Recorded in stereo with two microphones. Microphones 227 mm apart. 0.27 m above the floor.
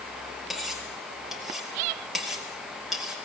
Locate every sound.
0.5 s cutlery clinking: centre (ahead or behind), 4 m